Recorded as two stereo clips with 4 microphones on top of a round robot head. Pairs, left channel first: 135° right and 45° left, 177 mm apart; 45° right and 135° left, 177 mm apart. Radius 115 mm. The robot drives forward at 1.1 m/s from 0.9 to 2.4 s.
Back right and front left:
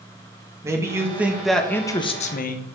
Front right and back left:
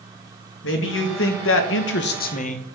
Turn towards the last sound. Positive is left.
turn(degrees=-95)